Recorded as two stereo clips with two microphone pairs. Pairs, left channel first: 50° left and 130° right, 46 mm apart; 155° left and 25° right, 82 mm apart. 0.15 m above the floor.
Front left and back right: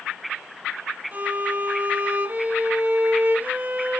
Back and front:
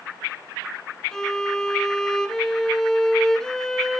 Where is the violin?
125° right, 1.0 m.